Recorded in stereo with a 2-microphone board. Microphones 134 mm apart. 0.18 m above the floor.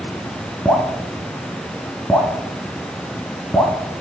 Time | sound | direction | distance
0.7 | dripping | 5° left (ahead or behind) | 1.8 m